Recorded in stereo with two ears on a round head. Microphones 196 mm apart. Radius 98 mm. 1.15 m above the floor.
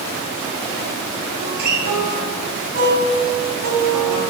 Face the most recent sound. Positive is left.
turn(degrees=-45)  # may be behind; listen again after turning